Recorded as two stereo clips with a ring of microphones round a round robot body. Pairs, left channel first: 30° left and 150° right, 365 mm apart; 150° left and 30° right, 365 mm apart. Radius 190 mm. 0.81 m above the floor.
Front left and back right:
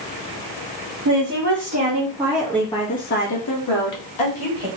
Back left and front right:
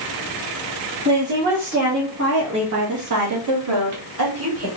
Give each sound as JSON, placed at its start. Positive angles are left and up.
{"t": 1.1, "sound": "a woman speaking", "azimuth_deg": -105, "distance_m": 1.7}